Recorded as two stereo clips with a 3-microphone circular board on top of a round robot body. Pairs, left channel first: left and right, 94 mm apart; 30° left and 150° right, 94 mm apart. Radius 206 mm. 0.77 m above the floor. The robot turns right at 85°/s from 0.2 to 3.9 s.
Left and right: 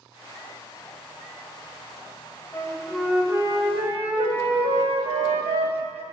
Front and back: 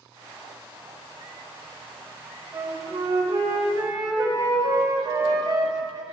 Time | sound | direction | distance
2.5 | a flute | 145° left | 2 m